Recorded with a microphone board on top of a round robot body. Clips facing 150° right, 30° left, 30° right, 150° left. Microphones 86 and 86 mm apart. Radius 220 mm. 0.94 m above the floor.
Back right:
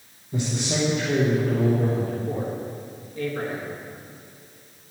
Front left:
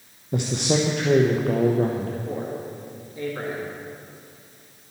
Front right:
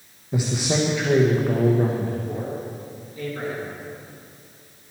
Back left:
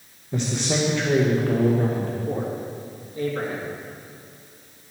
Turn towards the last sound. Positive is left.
turn(degrees=100)